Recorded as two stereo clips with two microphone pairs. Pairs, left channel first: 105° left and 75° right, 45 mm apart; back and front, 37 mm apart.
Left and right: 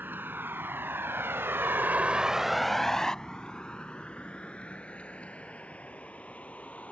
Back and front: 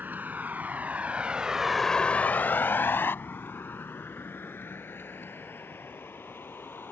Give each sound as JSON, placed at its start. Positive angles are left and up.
{"t": 0.0, "sound": "a vehicle", "azimuth_deg": -35}